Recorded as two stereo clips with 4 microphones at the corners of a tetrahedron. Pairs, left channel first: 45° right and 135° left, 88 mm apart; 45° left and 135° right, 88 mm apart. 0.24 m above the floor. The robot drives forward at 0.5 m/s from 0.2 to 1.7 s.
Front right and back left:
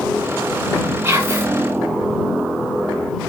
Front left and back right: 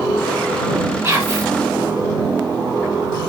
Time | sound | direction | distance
1.0 | whispering | straight behind | 1.9 m